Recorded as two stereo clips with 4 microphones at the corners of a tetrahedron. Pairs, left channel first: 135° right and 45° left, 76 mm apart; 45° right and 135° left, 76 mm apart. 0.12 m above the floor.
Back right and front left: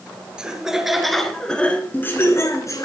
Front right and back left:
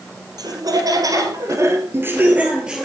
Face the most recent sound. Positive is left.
turn(degrees=-145)